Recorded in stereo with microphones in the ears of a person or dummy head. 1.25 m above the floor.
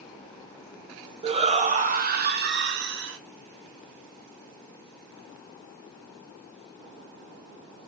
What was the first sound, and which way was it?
A shout, 35° right (ahead or behind).